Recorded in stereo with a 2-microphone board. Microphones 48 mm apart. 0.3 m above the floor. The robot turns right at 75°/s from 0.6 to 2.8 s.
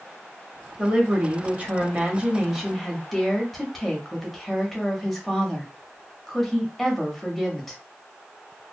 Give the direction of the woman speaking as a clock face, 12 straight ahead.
5 o'clock.